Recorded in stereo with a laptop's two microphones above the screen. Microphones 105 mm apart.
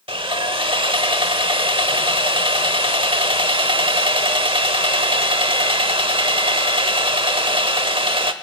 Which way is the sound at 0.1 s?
55° right (ahead or behind).